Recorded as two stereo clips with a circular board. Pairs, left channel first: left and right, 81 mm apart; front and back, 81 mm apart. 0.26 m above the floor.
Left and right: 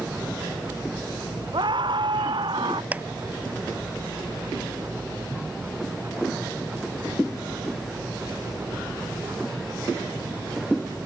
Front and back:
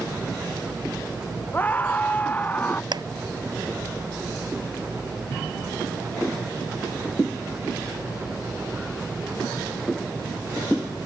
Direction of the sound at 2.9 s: 160° right.